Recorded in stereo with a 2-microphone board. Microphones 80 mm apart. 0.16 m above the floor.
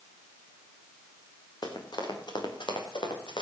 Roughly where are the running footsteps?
Left.